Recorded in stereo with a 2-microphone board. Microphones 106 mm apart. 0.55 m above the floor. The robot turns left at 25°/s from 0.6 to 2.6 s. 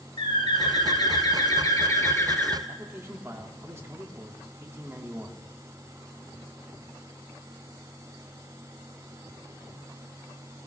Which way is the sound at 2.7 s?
25° right (ahead or behind).